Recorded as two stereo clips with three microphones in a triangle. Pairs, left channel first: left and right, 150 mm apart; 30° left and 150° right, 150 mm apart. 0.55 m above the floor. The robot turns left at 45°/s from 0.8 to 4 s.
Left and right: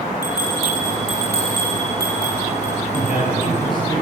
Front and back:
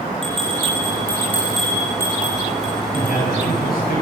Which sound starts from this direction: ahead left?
A man speaking, at 2.9 s.